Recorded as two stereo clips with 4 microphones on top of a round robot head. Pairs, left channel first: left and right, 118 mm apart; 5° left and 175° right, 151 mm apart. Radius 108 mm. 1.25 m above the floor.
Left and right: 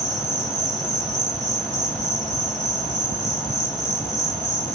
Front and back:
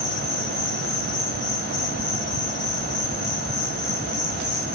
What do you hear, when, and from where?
0.0 s an insect: 35° left, 2.5 m